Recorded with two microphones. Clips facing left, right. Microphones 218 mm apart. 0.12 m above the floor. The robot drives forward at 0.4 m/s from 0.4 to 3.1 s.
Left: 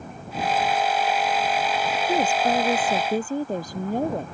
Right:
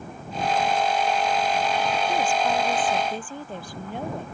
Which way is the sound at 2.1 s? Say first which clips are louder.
Left 6 dB; 40° left (ahead or behind).